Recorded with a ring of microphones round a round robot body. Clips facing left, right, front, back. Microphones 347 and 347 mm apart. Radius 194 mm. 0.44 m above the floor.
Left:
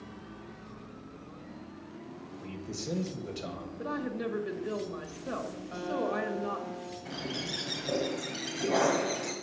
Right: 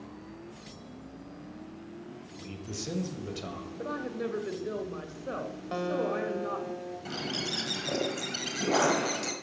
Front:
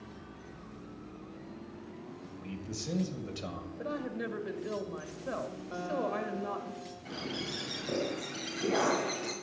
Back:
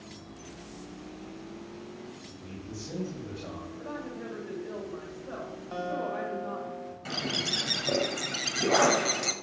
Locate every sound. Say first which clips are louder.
2.4 s a man speaking: even, front 1 dB; 20° right, 2.5 m
3.8 s a woman speaking: even, front 4 dB; 10° left, 2 m
5.7 s a guitar: right 2 dB, back 1 dB; 95° right, 1.8 m
7.0 s a bird: right 1 dB, back 3 dB; 155° right, 1.5 m